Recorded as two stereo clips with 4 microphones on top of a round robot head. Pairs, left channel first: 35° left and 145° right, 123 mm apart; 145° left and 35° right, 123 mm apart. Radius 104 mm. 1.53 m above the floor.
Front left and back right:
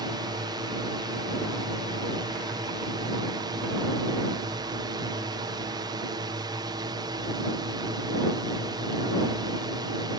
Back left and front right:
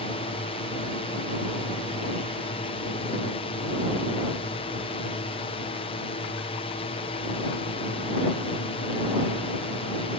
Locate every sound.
0.0 s a drone: 165° left